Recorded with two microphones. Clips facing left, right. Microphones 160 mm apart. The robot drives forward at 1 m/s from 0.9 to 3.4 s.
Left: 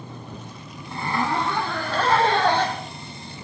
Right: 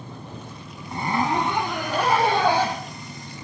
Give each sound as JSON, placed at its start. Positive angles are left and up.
{"t": 0.9, "sound": "a zipper", "side_deg": -25, "distance_m": 1.1}